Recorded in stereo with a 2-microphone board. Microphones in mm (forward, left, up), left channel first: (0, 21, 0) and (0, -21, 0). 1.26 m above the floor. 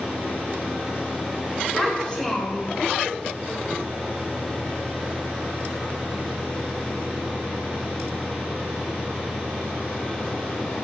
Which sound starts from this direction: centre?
A child speaking, at 1.8 s.